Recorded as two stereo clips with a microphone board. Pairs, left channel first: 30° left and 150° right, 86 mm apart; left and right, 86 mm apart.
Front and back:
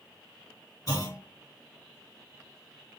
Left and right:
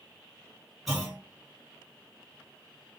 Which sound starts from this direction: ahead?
A clunk, at 0.9 s.